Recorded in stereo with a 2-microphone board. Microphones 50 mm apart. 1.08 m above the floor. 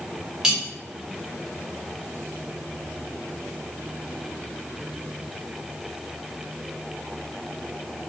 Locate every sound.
0.4 s cutlery clinking: 10° right (ahead or behind), 1.9 m